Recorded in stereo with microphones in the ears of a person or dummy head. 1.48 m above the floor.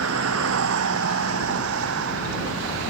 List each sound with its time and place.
0.0 s a vehicle: 85° right